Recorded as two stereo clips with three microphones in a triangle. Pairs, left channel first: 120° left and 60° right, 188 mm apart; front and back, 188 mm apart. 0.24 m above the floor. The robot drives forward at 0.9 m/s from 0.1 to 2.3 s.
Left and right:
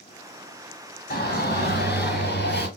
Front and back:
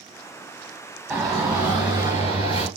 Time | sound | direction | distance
1.1 | a shout | 105° left | 3.5 m